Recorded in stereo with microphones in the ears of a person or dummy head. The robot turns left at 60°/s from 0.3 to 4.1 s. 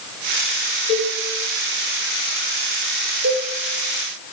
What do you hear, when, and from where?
0.9 s a cowbell: 40° left (ahead or behind), 7 m; by 1.2 s 55° left (ahead or behind), 7 m
3.2 s a cowbell: 65° right (ahead or behind), 5.5 m; by 3.5 s 80° right, 5.5 m